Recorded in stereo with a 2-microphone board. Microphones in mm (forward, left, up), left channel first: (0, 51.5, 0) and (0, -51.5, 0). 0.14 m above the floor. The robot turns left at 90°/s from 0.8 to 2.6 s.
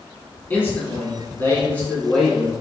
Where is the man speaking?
20° left (ahead or behind), 1.2 m; by 2.5 s 10° right (ahead or behind), 1.2 m.